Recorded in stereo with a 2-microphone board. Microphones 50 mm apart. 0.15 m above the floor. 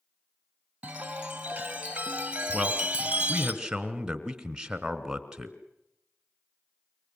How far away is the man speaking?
About 2 m.